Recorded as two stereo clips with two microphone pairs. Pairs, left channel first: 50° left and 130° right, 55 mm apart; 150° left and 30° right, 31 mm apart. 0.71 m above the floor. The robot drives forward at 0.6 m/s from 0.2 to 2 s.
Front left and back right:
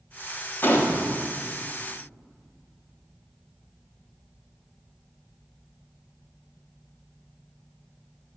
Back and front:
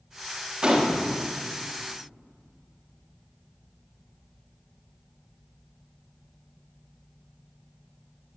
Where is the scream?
No scream in this recording.